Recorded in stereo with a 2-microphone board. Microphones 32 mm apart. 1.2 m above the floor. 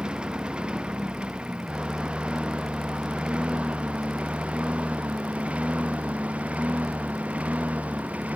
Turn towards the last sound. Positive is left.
turn(degrees=-45)  # may be behind; listen again after turning